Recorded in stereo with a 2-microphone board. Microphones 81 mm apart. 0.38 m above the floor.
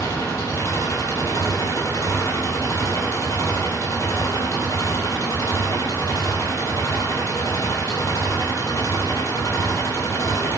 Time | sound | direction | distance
0.0 | an engine running | 40° left (ahead or behind) | 3.5 m